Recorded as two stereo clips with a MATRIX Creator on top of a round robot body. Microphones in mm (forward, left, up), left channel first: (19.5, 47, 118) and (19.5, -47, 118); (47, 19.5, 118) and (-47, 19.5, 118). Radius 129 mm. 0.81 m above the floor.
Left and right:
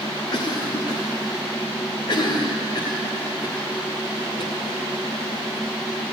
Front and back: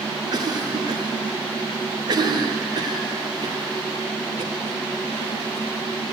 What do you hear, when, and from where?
0.3 s a cough: 135° left, 2.0 m